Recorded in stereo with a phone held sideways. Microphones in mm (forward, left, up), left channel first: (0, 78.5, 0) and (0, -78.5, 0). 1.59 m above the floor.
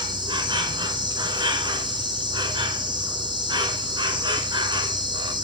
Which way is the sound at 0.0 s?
30° right (ahead or behind).